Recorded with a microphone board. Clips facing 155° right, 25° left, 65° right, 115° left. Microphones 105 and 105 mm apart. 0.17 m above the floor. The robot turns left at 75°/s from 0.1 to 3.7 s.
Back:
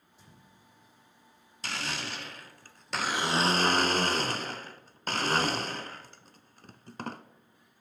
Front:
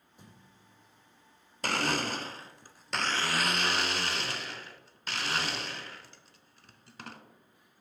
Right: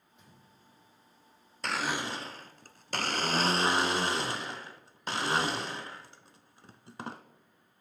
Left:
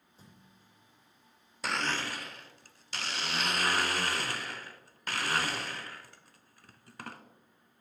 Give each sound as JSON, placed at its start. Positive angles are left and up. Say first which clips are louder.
{"t": 0.2, "sound": "a thud", "louder": "front 1 dB, left 1 dB", "azimuth_deg": 60, "distance_m": 3.0}
{"t": 1.6, "sound": "a blender", "louder": "front 7 dB, right 1 dB", "azimuth_deg": 30, "distance_m": 0.5}